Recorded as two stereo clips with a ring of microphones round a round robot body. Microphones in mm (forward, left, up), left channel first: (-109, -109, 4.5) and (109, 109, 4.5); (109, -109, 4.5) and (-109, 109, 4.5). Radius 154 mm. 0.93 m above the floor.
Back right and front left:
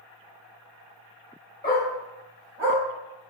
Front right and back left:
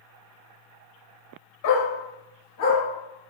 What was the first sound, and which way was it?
A dog barking, 60° right.